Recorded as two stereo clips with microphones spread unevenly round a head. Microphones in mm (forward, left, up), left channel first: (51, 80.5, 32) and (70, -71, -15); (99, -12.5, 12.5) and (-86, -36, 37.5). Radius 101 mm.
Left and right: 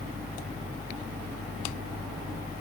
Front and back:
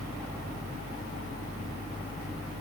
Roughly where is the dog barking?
No dog barking in this recording.